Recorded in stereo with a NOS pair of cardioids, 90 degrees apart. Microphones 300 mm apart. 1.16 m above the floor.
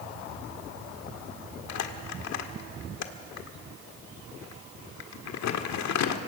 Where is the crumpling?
70° left, 1.7 m.